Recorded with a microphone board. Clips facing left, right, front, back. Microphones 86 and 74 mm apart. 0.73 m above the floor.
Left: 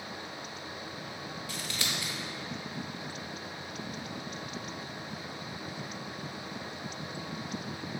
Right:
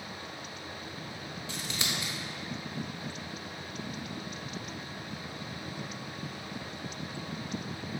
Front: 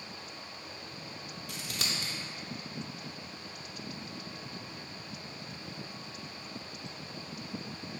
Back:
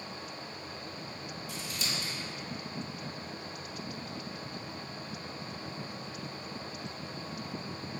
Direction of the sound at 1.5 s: 25° right.